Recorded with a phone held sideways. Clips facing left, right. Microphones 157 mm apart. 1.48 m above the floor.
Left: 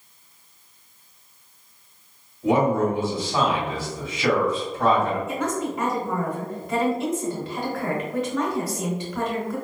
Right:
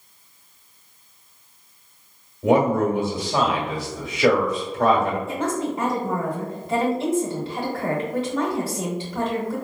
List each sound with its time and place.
2.4 s a man speaking: 65° right (ahead or behind), 1.5 m
5.3 s a woman speaking: 30° right (ahead or behind), 1.3 m